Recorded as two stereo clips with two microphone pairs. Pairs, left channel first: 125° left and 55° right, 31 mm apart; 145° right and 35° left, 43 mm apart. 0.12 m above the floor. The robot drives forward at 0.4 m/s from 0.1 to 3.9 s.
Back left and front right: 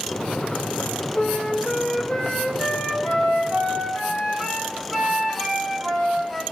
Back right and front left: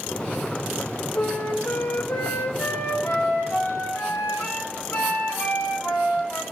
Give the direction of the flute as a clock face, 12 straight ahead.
6 o'clock.